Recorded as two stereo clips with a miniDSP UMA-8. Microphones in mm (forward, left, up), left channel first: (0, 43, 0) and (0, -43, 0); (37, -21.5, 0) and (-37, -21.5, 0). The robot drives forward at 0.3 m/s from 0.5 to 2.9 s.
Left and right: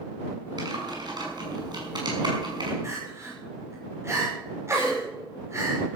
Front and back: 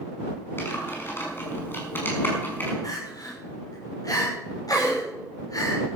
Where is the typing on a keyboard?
55° right, 6 m; by 2.7 s 60° right, 5.5 m.